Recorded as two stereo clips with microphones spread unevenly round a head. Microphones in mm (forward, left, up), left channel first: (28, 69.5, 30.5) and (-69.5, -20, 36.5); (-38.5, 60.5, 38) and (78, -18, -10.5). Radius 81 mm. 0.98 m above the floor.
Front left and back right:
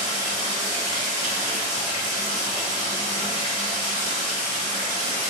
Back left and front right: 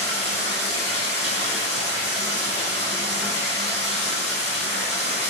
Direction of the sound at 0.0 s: 165° right.